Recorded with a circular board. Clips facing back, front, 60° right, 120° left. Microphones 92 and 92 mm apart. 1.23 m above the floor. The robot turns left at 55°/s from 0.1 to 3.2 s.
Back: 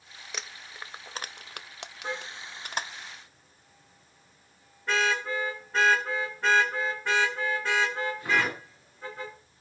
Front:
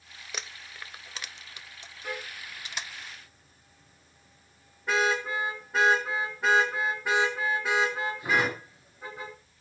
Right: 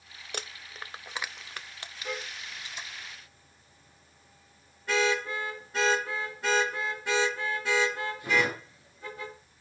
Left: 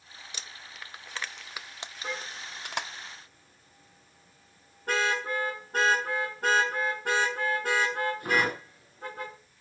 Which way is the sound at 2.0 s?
145° left.